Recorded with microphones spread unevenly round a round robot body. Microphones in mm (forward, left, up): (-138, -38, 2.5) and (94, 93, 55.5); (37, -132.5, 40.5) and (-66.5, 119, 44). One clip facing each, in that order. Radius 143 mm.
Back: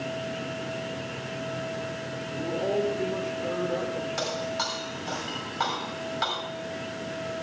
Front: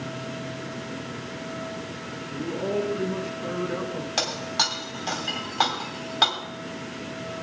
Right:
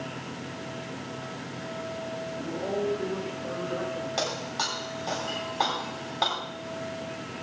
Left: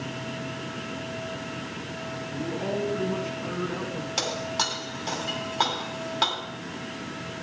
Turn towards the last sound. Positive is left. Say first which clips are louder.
# even, left 1 dB
turn(degrees=45)